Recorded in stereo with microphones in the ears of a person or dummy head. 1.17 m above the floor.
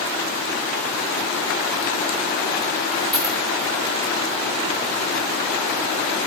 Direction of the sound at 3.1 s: Centre (ahead or behind).